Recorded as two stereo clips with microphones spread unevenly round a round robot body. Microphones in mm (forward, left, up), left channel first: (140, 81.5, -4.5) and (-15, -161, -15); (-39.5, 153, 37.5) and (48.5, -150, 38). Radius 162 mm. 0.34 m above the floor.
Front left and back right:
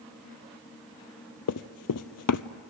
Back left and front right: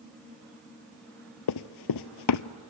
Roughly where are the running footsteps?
Left.